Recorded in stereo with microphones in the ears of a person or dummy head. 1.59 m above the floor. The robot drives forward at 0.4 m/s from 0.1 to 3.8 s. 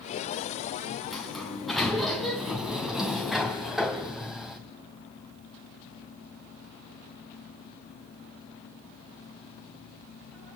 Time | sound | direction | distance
1.1 | a sliding door | centre (ahead or behind) | 3 m